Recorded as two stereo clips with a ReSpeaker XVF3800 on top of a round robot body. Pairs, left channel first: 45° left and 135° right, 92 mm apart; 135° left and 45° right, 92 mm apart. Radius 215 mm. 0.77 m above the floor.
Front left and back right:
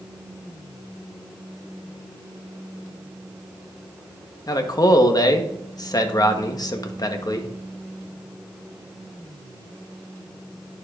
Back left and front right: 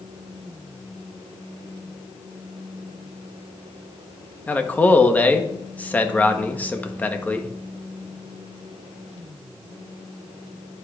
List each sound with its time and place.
4.5 s a man speaking: 70° left, 1.2 m